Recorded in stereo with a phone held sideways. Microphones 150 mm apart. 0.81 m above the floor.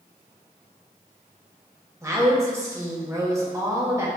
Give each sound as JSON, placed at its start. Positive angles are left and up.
{"t": 2.0, "sound": "a woman speaking", "side_deg": -20, "distance_m": 1.1}